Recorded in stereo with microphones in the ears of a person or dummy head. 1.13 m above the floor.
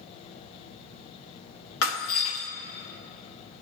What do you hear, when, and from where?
1.8 s breaking glass: 70° left (ahead or behind), 1.2 m